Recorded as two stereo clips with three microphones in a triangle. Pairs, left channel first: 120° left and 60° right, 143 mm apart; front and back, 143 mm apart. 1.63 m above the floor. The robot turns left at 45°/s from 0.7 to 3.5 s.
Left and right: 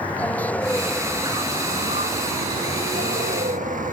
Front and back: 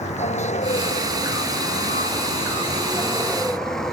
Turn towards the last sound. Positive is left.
turn(degrees=-85)